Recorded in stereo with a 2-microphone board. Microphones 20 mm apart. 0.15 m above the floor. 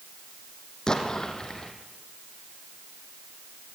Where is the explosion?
35° left (ahead or behind), 3 m.